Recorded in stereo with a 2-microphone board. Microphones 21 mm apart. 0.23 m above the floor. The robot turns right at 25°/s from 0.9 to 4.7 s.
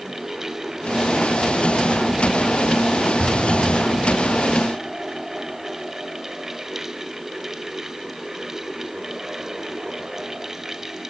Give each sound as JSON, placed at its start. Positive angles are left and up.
{"t": 3.2, "sound": "an explosion", "side_deg": 5, "distance_m": 2.5}